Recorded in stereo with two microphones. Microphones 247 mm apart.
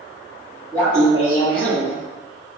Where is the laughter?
10° left (ahead or behind), 1.2 m; by 1.9 s 45° left (ahead or behind), 1.6 m.